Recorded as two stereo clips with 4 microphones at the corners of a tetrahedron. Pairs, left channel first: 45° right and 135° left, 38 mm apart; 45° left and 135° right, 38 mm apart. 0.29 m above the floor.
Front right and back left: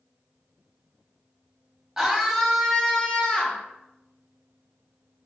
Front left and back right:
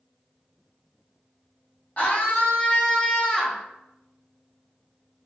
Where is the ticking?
No ticking in this recording.